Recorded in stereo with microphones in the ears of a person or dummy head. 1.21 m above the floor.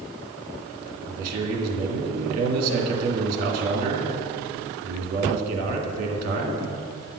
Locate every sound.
1.1 s a man speaking: 55° right (ahead or behind), 2 m